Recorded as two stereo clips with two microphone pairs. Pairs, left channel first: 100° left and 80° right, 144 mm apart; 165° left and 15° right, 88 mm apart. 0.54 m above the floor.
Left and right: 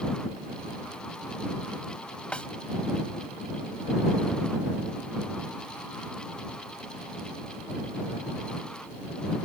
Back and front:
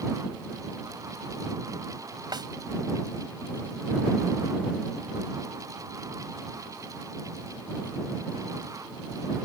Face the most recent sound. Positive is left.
turn(degrees=20)